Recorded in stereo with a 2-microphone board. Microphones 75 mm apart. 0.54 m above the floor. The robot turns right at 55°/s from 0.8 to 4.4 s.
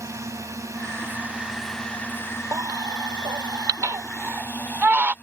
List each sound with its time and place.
0.0 s a drone: 45° right; by 5.2 s 150° left
2.5 s a baby crying: 50° right (ahead or behind); by 5.1 s 25° right (ahead or behind)